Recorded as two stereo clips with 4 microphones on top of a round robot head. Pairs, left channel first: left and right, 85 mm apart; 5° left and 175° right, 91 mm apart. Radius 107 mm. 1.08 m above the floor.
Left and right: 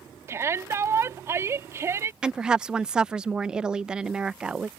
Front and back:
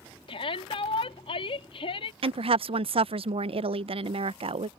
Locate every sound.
0.3 s a shout: 30° right
2.2 s a woman speaking: 170° right